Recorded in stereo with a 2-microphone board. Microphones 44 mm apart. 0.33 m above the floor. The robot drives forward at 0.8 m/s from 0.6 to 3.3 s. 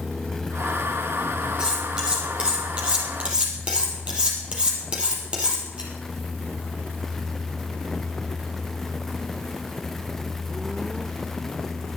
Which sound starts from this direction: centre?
Cutlery clinking, at 1.6 s.